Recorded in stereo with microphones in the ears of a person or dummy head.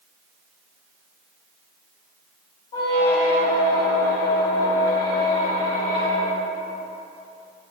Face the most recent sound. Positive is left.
turn(degrees=25)  # may be behind; listen again after turning